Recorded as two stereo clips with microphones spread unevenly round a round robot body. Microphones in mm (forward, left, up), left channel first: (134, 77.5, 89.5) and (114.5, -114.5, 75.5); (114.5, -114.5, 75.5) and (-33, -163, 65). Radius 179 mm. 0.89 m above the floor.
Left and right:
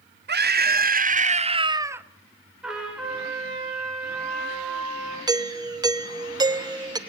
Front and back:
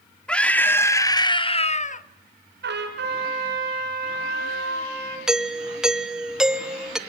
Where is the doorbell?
90° right, 1.4 m.